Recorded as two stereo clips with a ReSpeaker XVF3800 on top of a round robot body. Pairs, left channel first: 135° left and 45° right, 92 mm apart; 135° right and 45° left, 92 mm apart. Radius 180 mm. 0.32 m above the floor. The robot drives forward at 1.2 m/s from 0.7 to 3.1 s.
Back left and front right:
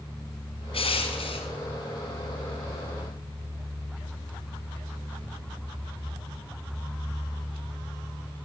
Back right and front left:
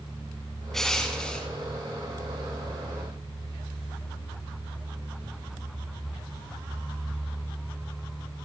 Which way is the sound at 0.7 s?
140° left.